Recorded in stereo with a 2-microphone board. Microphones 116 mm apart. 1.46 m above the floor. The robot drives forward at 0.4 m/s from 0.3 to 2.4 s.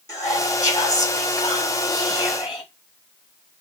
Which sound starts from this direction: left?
Whispering, at 0.1 s.